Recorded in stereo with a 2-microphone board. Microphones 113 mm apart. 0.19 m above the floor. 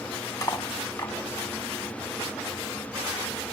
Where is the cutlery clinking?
35° left (ahead or behind), 0.7 m.